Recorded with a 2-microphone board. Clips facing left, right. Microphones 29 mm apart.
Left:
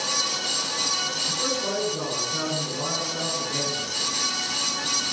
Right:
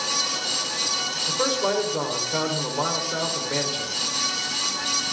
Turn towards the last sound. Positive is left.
turn(degrees=-70)  # may be behind; listen again after turning